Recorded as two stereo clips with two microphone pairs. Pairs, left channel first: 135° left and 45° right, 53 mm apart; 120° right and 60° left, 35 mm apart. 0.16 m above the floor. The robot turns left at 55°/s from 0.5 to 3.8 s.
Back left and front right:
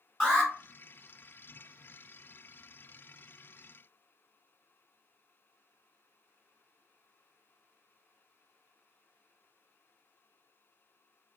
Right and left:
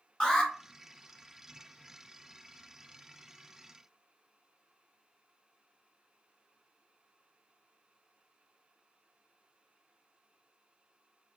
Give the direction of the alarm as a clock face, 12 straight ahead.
5 o'clock.